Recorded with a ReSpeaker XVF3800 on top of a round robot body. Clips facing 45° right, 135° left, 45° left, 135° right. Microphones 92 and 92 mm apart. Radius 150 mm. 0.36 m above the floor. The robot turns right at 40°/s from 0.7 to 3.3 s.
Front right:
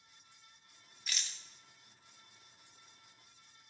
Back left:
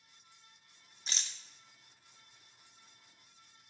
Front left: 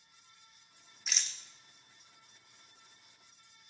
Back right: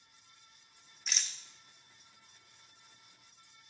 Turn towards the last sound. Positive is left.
turn(degrees=-140)